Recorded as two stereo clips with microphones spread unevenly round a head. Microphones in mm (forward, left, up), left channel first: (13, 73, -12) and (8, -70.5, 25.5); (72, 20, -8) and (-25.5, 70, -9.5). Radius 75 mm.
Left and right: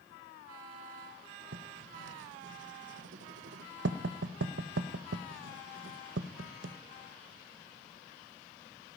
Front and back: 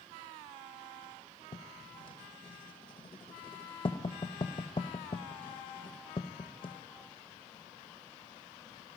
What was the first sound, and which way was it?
Writing, 85° right.